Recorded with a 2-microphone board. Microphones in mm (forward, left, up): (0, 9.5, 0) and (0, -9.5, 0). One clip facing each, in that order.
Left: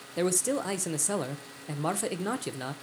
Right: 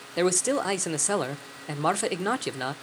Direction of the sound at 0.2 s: 25° right (ahead or behind).